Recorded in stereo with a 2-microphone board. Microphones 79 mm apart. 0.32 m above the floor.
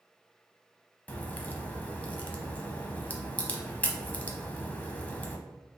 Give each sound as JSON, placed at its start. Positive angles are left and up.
{"t": 1.1, "sound": "a crack", "side_deg": 20, "distance_m": 0.7}